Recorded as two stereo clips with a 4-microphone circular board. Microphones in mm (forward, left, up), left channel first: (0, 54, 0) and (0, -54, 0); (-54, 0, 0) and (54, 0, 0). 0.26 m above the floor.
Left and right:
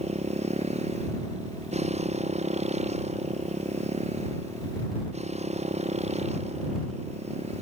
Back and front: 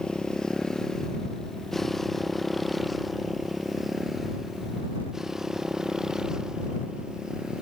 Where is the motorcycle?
95° right; by 7.6 s 85° right.